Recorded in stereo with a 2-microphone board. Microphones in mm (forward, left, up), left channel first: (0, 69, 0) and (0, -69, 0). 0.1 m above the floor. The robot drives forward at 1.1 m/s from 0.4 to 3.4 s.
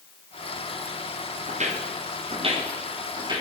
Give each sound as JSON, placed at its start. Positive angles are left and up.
{"t": 1.5, "sound": "footsteps", "side_deg": -60, "distance_m": 3.0}